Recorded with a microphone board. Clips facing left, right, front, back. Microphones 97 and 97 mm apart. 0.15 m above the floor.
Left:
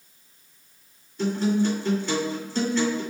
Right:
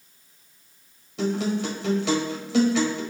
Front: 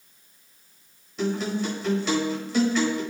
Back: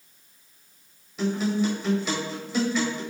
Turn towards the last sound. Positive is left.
turn(degrees=-90)